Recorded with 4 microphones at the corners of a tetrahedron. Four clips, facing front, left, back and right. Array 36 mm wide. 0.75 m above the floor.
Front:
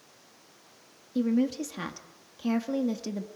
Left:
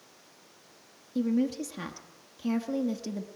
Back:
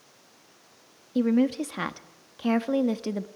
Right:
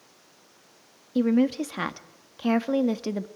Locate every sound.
1.1 s a woman speaking: 125° right, 1.1 m